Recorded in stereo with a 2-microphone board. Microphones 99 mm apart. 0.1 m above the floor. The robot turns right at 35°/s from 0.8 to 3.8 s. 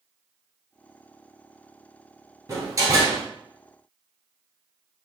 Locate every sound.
2.5 s a door slam: 30° right (ahead or behind), 1.2 m; by 3.2 s 40° right (ahead or behind), 1.2 m